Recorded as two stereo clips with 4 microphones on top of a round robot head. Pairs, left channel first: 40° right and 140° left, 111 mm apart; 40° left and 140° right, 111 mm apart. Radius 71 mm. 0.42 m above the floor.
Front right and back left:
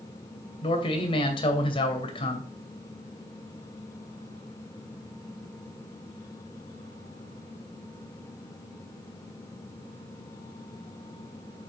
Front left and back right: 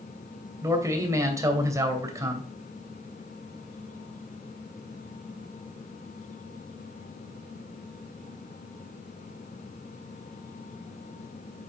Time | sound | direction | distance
0.6 | a man speaking | 75° right | 2.5 m